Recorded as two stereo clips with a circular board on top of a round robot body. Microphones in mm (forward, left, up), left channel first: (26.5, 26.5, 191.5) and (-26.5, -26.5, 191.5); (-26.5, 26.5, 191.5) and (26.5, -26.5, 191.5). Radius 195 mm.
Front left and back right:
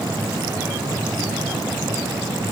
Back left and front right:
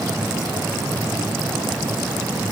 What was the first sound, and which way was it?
Only background noise.